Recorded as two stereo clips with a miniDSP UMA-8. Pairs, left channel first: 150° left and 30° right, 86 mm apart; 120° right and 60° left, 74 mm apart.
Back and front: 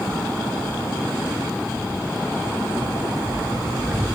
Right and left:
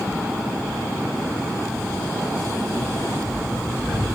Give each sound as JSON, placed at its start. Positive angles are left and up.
{"t": 1.7, "sound": "footsteps", "azimuth_deg": -65, "distance_m": 4.0}